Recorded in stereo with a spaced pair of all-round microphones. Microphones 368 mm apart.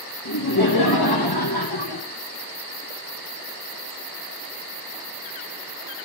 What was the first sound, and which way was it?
Laughter, 80° left.